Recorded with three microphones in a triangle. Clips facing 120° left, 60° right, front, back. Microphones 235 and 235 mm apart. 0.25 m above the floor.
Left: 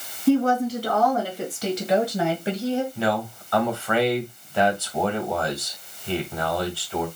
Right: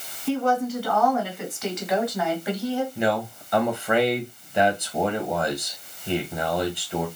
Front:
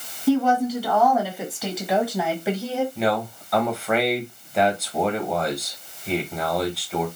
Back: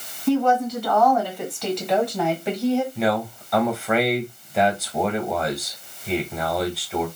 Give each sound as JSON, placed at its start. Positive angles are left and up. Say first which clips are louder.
{"t": 0.3, "sound": "a woman speaking", "louder": "left 4 dB, even", "azimuth_deg": 80, "distance_m": 2.5}
{"t": 3.0, "sound": "a man speaking", "louder": "right 1 dB, back 1 dB", "azimuth_deg": -90, "distance_m": 1.6}